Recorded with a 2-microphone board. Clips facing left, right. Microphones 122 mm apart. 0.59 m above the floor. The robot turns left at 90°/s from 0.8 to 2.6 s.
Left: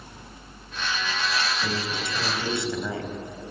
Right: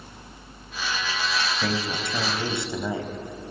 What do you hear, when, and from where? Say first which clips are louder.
1.6 s a man speaking: right 2 dB; 70° right, 3 m; by 3.1 s 160° right, 3 m